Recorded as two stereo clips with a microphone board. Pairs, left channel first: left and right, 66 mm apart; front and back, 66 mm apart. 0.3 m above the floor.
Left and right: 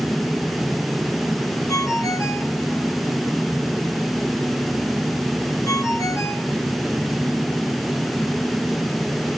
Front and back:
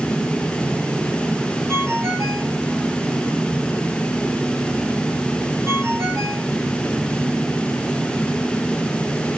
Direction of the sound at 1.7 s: 135° left.